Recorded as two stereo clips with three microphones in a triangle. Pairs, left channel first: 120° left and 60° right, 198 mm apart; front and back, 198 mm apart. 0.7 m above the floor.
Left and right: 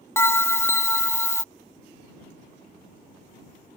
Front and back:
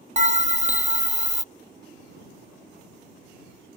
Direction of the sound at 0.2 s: 175° right.